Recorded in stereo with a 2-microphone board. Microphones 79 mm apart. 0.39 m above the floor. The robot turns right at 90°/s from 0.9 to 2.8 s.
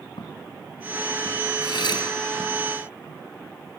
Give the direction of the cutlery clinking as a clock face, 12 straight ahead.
9 o'clock.